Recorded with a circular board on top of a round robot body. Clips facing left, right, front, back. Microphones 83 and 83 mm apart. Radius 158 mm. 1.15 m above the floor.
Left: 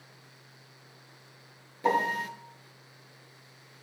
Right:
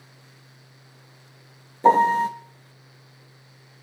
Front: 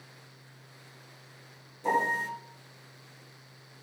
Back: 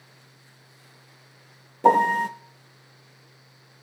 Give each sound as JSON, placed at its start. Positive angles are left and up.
{"t": 1.8, "sound": "a piano", "azimuth_deg": -150, "distance_m": 0.7}